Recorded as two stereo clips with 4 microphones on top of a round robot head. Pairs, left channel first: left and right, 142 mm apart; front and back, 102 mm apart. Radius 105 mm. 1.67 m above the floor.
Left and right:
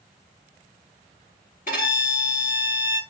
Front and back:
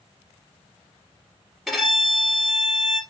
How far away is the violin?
About 2 m.